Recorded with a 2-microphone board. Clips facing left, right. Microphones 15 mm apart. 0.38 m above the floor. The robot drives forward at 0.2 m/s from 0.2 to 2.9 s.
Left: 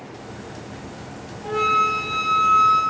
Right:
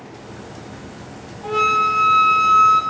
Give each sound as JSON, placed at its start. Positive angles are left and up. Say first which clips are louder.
{"t": 1.4, "sound": "a flute", "louder": "right 2 dB", "side_deg": -55, "distance_m": 1.0}